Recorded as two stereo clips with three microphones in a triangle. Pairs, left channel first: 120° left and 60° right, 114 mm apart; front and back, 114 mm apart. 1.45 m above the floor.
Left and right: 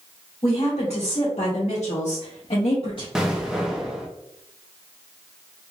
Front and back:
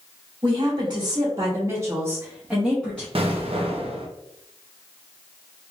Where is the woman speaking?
145° left, 1.6 m; by 3.0 s 80° left, 1.0 m.